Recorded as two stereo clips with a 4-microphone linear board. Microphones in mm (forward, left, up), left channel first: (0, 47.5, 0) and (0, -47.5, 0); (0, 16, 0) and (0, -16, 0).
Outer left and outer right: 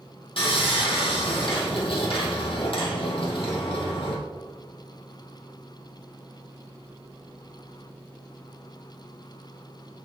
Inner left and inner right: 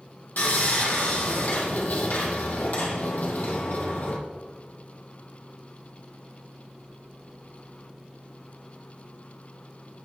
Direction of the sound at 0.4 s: 65° left (ahead or behind).